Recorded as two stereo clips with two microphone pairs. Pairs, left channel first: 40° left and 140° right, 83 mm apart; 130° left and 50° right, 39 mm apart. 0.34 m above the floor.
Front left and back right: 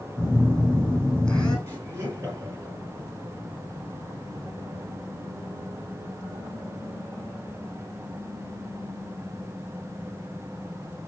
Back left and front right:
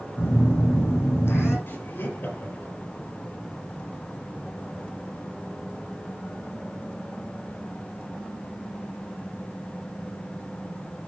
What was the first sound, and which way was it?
A phone buzzing, 120° left.